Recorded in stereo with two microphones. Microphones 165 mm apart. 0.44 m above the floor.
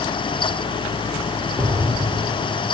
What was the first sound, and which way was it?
An explosion, 25° right (ahead or behind).